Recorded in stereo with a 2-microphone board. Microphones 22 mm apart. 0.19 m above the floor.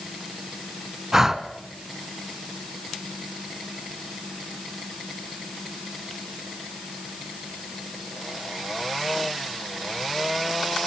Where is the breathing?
20° right (ahead or behind), 1.2 m.